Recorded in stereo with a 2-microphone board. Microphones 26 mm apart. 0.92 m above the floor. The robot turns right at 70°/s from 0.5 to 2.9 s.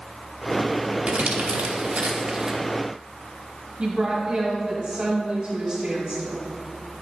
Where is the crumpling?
55° right (ahead or behind), 1.0 m; by 2.6 s 15° right (ahead or behind), 1.0 m.